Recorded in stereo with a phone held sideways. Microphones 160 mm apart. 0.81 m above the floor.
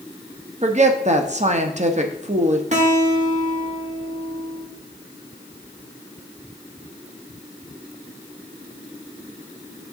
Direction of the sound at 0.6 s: 45° right (ahead or behind).